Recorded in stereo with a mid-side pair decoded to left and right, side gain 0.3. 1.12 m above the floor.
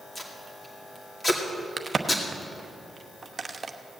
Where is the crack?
45° right, 0.9 m.